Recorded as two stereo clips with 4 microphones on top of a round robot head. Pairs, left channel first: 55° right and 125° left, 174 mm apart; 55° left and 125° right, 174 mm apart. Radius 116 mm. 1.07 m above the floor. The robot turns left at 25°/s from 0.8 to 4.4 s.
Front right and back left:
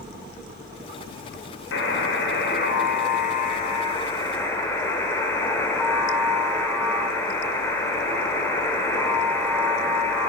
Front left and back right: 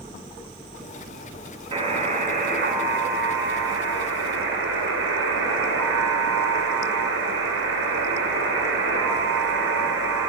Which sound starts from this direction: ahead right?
A buzzer, at 1.7 s.